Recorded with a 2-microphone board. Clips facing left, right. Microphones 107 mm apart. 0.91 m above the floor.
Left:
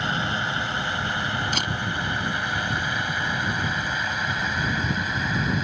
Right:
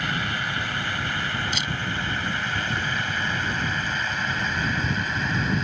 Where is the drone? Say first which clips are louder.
Left 2 dB; 25° left (ahead or behind); by 5.7 s 5° left (ahead or behind).